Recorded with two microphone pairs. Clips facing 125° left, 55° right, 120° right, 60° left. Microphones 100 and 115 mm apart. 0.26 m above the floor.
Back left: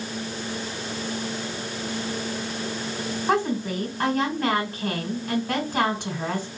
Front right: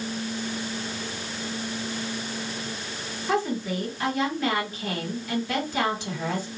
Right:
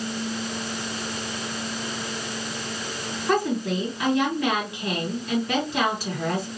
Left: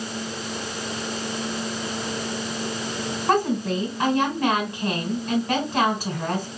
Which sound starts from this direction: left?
A woman speaking, at 3.3 s.